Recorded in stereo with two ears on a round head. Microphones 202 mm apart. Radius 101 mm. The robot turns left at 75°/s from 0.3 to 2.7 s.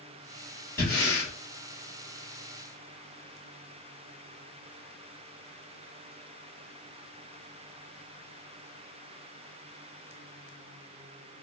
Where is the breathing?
170° left, 1.6 m; by 1.3 s 130° left, 1.6 m.